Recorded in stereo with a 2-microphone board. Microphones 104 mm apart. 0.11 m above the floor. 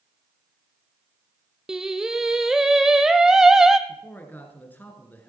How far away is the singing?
About 0.8 m.